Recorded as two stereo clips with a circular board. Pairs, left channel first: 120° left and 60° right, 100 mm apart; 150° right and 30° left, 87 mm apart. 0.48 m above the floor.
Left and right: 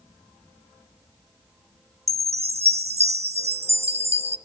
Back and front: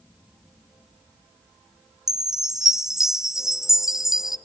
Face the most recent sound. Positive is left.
turn(degrees=-55)